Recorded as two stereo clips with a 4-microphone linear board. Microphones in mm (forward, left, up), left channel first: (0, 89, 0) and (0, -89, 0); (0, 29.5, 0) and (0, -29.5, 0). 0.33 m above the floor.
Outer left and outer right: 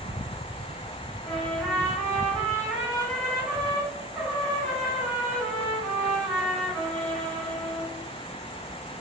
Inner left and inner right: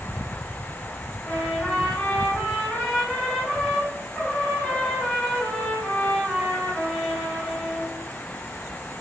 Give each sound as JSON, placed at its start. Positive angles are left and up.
{"t": 1.2, "sound": "a trumpet", "side_deg": 10, "distance_m": 1.9}